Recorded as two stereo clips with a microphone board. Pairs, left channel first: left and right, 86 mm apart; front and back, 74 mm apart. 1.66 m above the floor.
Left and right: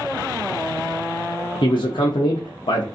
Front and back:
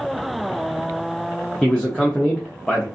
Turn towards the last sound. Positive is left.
turn(degrees=80)